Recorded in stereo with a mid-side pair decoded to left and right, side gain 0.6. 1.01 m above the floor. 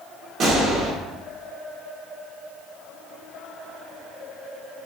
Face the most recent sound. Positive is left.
turn(degrees=-50)